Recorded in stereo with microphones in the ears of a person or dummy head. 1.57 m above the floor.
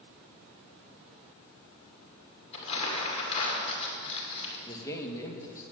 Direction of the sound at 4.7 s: 15° left (ahead or behind).